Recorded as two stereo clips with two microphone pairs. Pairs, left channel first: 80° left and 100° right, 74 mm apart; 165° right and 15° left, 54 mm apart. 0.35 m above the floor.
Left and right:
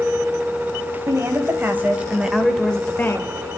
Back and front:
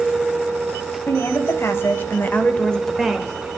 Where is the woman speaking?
145° right, 2 m; by 3.5 s 80° left, 1.4 m.